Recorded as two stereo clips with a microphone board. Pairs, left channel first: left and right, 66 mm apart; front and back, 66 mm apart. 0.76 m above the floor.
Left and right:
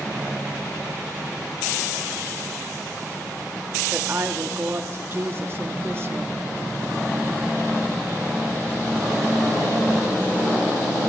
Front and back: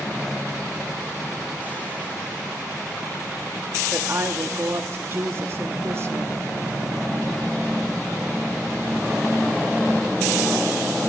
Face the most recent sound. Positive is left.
turn(degrees=-135)